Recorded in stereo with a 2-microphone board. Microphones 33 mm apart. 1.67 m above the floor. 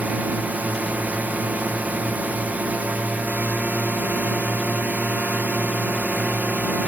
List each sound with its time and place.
0.0 s a drone: 50° right (ahead or behind)